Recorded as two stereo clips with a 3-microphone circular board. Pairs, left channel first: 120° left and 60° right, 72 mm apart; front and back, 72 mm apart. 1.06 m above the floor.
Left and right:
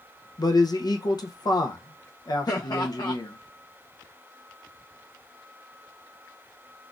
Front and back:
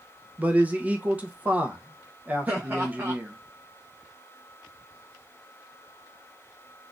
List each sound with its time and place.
0.4 s a man speaking: 115° left, 0.6 m
2.5 s laughter: 125° left, 0.8 m